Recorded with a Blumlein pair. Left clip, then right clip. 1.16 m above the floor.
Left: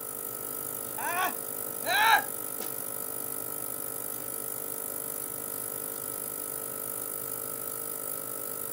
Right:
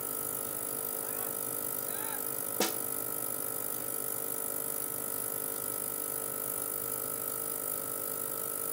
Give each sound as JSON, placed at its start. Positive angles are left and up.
{"t": 1.0, "sound": "a scream", "azimuth_deg": 50}
{"t": 2.6, "sound": "a snare drum", "azimuth_deg": -60}